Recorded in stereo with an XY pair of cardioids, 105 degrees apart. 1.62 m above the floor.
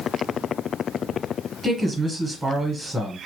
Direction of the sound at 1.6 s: 25° right.